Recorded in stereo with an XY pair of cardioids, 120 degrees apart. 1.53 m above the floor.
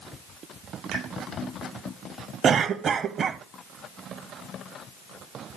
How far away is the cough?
About 0.8 m.